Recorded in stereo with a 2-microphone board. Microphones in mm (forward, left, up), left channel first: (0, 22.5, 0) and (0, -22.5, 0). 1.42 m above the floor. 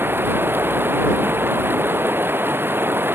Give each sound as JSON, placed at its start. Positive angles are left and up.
{"t": 0.0, "sound": "running water", "side_deg": -55}